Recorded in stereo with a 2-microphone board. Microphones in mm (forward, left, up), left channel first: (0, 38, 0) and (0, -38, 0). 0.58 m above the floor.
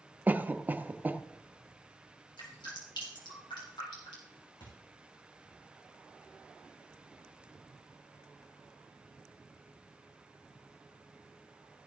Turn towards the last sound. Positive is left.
turn(degrees=85)